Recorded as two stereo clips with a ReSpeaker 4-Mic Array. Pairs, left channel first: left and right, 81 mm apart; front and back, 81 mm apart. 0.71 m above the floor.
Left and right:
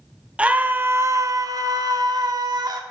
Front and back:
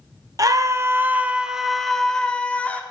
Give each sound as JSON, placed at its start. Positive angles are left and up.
{"t": 0.4, "sound": "a scream", "azimuth_deg": -160, "distance_m": 0.8}